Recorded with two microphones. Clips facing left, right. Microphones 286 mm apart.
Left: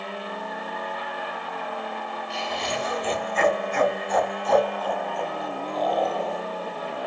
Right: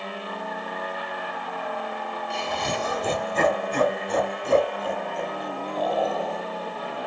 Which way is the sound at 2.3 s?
55° right (ahead or behind).